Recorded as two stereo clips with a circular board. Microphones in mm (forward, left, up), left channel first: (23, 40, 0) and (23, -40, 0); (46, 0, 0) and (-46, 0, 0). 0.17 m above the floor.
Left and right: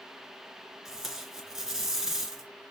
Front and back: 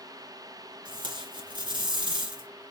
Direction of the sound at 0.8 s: 175° right.